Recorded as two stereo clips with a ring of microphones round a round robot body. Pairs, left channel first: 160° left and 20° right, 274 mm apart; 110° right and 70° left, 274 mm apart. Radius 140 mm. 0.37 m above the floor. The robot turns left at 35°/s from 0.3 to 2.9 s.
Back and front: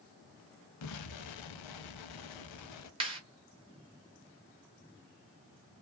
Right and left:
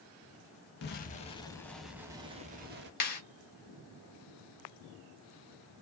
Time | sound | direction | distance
0.8 | an explosion | 170° right | 0.5 m
3.0 | a clap | 85° right | 1.2 m